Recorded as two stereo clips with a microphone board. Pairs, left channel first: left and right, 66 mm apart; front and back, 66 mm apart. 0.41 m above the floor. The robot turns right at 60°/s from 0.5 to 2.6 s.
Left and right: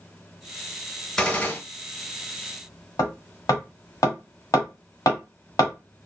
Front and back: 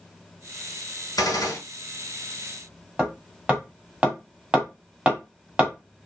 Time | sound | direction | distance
1.2 | a gunshot | 10° left | 1.3 m
3.0 | hammering | 110° left | 1.4 m